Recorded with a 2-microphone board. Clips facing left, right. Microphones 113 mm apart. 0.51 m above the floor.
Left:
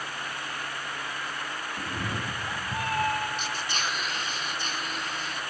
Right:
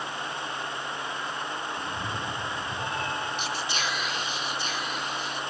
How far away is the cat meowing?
About 2 m.